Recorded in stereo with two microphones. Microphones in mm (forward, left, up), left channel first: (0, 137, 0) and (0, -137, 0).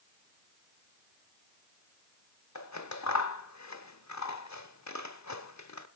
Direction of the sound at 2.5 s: 85° left.